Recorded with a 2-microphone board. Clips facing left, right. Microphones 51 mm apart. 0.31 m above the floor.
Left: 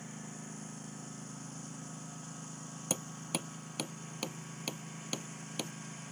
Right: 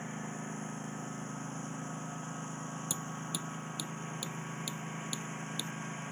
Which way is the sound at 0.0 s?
30° right (ahead or behind).